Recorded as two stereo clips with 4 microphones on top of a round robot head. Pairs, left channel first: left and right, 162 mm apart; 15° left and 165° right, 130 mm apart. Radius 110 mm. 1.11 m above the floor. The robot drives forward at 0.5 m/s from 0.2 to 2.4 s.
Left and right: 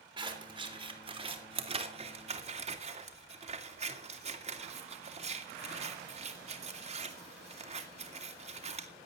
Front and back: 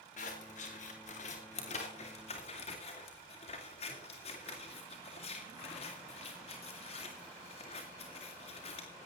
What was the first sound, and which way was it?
Scissors, 30° right.